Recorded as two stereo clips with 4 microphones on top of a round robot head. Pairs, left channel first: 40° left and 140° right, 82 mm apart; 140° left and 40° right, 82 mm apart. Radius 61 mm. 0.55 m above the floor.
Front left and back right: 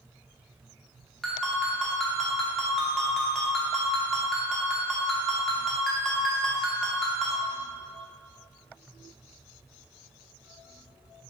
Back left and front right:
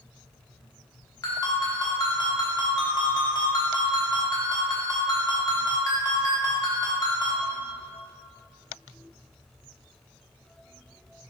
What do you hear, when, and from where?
1.2 s a ringtone: 125° left, 0.9 m